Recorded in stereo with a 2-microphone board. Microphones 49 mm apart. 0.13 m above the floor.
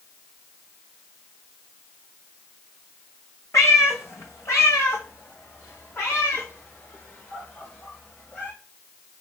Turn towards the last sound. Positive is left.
turn(degrees=40)  # may be behind; listen again after turning